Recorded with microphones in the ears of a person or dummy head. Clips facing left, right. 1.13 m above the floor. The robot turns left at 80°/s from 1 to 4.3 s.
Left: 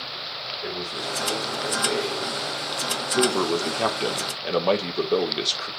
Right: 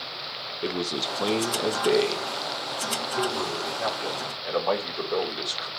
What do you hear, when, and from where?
0.6 s a man speaking: 55° right, 3 m; by 5.7 s 45° left, 3 m